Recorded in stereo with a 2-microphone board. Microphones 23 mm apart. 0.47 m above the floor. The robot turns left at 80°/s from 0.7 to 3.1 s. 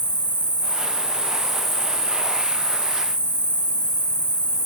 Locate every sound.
0.0 s an insect: 95° right, 0.9 m; by 4.7 s 70° left, 0.9 m